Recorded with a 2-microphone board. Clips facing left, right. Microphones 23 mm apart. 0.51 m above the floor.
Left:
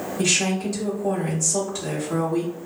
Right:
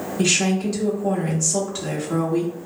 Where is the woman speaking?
20° right (ahead or behind), 0.7 m.